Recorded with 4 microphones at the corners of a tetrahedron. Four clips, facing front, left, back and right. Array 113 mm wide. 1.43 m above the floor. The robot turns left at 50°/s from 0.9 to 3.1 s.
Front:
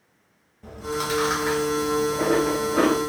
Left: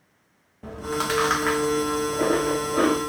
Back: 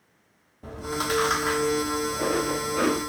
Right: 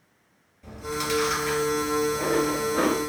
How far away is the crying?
No crying in this recording.